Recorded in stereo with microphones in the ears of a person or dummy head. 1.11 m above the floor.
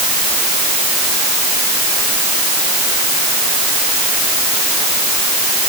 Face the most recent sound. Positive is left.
No sound to turn to.